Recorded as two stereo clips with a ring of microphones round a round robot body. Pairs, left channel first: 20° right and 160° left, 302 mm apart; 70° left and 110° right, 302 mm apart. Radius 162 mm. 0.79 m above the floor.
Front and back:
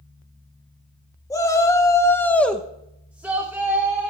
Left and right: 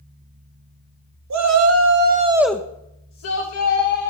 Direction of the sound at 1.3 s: 100° right.